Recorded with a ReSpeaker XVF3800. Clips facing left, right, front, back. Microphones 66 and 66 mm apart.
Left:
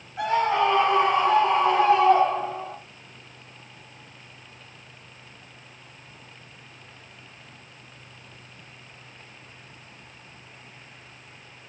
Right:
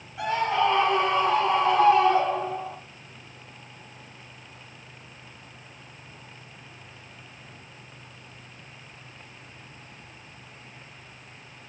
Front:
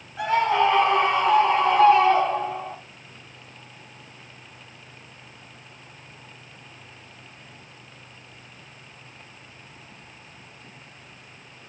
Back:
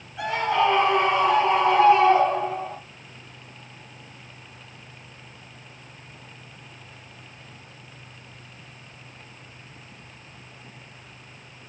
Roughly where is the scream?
Ahead left.